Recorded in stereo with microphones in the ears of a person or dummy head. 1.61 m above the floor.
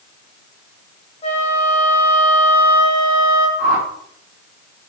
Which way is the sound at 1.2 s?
35° left (ahead or behind).